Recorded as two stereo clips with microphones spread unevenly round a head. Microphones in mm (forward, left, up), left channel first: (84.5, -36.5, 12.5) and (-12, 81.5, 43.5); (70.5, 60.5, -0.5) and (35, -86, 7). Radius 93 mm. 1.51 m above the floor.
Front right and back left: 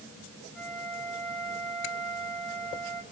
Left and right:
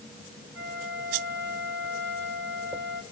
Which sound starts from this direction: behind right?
A flute, at 0.6 s.